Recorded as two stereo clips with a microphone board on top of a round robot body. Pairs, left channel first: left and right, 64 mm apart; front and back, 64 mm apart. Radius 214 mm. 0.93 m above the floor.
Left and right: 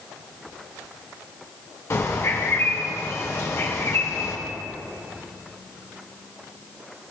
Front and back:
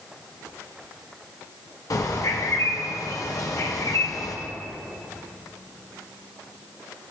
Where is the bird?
40° left, 0.7 m.